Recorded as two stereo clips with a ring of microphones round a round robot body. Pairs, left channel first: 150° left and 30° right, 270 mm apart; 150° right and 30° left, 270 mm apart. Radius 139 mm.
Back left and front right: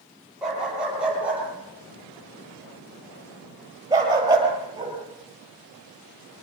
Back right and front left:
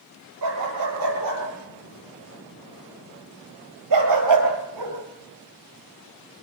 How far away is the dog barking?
About 9 m.